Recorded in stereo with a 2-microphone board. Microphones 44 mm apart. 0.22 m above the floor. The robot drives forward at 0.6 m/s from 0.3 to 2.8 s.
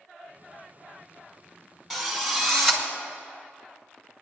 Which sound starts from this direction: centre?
A drill, at 1.9 s.